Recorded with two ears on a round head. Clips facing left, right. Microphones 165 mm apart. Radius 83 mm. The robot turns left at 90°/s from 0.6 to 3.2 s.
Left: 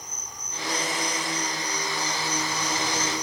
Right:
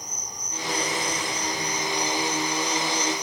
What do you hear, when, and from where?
0.0 s an insect: 15° right; by 3.2 s 110° left